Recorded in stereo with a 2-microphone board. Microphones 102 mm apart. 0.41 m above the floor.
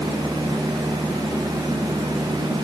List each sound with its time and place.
Only background noise.